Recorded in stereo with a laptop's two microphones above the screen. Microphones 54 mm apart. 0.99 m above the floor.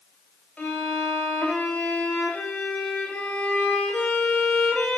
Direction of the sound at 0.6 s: 20° left (ahead or behind).